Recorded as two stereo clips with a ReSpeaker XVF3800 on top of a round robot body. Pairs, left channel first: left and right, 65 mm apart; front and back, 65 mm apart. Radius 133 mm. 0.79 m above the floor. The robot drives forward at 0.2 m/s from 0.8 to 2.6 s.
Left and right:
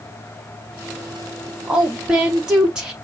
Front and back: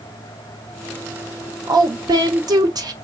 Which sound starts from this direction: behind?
A woman speaking, at 1.7 s.